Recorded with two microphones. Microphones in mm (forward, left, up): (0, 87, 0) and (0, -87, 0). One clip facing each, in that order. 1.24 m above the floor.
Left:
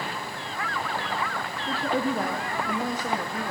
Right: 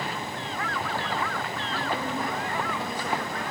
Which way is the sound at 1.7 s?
70° left (ahead or behind).